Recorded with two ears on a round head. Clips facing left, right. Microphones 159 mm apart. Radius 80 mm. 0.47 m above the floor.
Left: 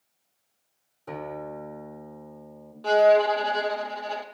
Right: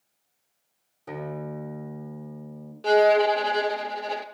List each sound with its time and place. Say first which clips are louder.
1.1 s a guitar: right 1 dB; 10° right (ahead or behind), 1.8 m
2.8 s a violin: even; 25° right (ahead or behind), 0.8 m